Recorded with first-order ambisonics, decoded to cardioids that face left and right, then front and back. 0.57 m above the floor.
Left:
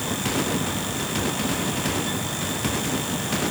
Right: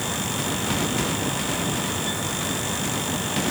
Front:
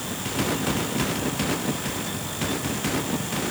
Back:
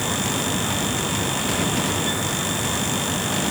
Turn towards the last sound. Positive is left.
No sound to turn to.